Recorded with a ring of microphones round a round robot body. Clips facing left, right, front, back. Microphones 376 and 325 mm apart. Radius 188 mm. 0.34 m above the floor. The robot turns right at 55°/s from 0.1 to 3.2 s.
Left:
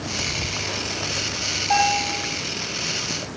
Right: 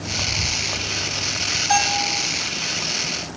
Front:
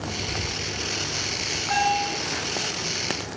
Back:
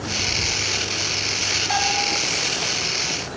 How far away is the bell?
About 1.8 m.